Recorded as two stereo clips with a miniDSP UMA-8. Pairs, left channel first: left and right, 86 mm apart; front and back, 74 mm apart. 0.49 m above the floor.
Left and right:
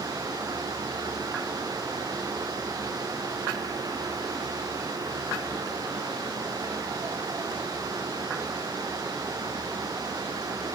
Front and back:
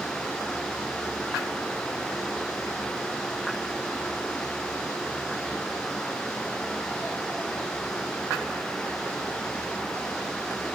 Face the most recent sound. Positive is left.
No sound to turn to.